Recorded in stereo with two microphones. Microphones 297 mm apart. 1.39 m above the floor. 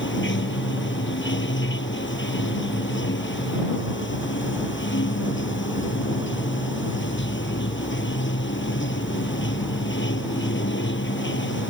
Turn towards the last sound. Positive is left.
turn(degrees=40)  # may be behind; listen again after turning